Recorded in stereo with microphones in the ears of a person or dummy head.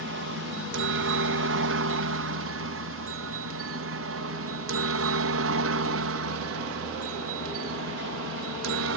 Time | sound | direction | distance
0.0 | a helicopter | 55° right (ahead or behind) | ?